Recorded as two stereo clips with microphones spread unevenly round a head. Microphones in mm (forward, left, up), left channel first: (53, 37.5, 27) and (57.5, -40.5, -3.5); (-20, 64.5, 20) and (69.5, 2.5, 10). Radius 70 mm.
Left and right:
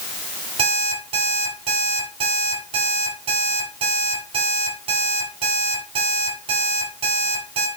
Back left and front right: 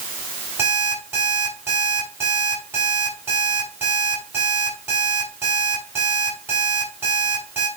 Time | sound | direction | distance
0.6 | an alarm clock | 110° right | 5.5 m